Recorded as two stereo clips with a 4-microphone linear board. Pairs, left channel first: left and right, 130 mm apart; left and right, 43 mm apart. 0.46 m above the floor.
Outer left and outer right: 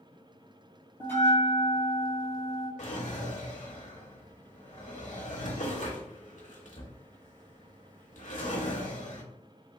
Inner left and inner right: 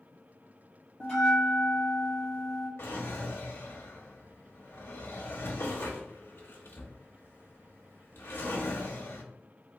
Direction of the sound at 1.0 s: 15° left (ahead or behind).